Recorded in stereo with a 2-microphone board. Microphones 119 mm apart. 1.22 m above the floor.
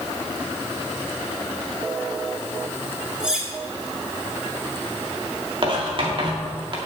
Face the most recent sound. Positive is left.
turn(degrees=-45)  # may be behind; listen again after turning